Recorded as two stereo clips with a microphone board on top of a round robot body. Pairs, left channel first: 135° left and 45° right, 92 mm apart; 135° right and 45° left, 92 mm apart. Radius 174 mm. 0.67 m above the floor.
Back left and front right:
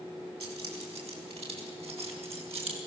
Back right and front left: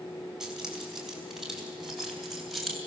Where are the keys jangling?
40° right, 4.5 m; by 2.8 s 45° right, 3 m.